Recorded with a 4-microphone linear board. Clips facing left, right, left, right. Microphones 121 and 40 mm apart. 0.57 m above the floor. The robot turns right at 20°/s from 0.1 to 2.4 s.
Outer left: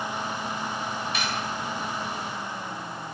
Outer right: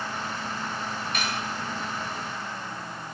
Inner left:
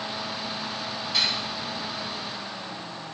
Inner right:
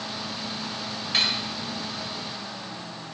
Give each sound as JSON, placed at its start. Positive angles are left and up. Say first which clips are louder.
{"t": 1.1, "sound": "cutlery clinking", "louder": "outer left 1 dB, inner right 1 dB", "side_deg": -55, "distance_m": 1.6}